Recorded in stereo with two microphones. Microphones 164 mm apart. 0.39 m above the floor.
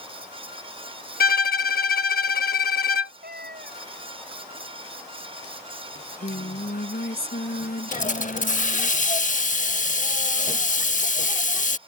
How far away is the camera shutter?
I don't hear a camera shutter.